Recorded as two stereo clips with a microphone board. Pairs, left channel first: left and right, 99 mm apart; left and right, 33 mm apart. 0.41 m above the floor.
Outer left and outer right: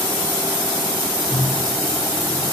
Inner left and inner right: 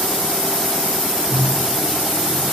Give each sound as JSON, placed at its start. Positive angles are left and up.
{"t": 1.3, "sound": "a microwave", "side_deg": 35, "distance_m": 5.5}